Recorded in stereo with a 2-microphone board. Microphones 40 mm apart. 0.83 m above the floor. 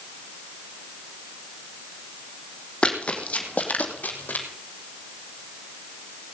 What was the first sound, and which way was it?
Running footsteps, 25° left (ahead or behind).